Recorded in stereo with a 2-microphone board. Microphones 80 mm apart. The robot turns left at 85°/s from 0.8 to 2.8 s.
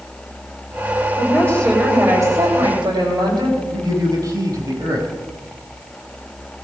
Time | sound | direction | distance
1.2 | a woman speaking | 50° left | 7 m
3.7 | a man speaking | 50° right (ahead or behind) | 6.5 m